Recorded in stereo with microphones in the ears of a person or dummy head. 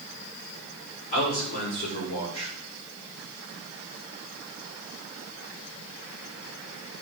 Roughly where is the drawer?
I don't hear a drawer.